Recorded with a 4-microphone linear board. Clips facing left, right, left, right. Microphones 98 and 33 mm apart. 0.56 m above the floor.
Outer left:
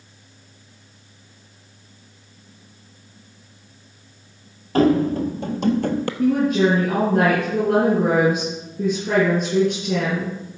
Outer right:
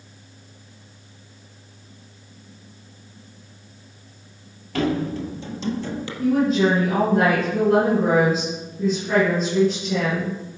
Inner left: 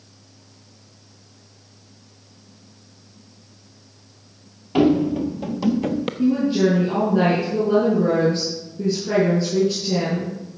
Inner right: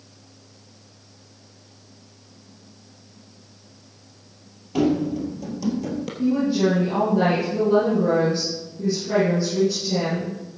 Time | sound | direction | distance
4.8 | running footsteps | 40° left (ahead or behind) | 0.9 m
6.2 | a woman speaking | 60° left (ahead or behind) | 6 m